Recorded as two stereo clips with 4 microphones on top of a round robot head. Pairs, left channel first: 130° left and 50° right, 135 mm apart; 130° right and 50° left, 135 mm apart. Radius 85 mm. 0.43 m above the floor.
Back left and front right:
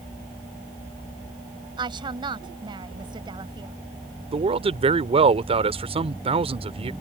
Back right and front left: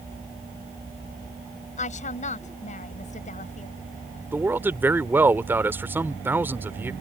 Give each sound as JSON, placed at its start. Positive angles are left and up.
{"t": 1.8, "sound": "a woman speaking", "azimuth_deg": -105}
{"t": 4.3, "sound": "a man speaking", "azimuth_deg": -20}